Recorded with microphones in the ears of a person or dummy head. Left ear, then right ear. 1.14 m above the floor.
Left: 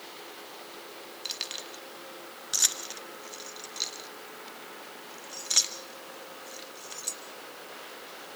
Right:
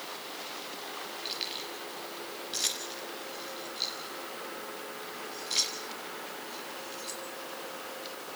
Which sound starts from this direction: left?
Keys jangling, at 1.2 s.